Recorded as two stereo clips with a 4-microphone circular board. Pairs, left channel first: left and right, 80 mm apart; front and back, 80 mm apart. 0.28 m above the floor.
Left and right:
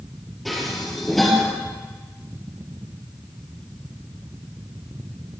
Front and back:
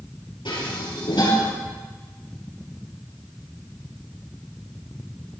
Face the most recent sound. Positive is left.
turn(degrees=0)